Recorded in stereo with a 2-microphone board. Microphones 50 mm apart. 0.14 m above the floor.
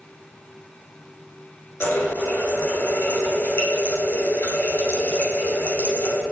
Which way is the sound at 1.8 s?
60° left (ahead or behind).